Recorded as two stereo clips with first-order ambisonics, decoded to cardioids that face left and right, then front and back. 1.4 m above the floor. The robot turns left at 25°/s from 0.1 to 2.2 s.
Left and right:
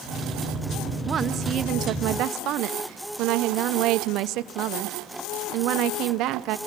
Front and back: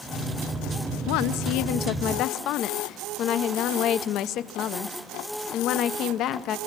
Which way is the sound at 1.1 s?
20° right.